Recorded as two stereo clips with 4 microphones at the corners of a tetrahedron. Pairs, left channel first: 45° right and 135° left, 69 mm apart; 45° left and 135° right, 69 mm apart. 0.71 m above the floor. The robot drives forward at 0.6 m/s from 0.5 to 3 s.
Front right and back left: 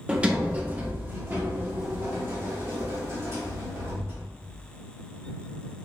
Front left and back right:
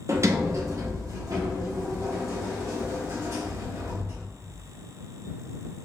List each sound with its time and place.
0.1 s a sliding door: 160° right, 0.5 m; by 4.2 s 175° right, 1.9 m